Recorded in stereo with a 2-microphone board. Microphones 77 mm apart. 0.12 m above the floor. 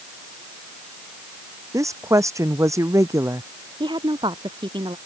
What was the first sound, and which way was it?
A woman speaking, 40° right (ahead or behind).